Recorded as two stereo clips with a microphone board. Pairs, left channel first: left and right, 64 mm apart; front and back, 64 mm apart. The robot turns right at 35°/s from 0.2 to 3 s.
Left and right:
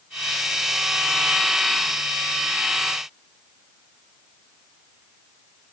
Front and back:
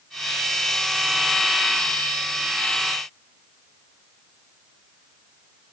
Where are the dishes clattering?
No dishes clattering in this recording.